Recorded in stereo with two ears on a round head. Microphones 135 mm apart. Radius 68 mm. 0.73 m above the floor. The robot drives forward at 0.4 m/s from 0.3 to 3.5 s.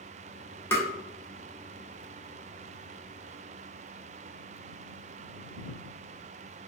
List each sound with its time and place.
0.7 s tapping: 15° left (ahead or behind), 0.8 m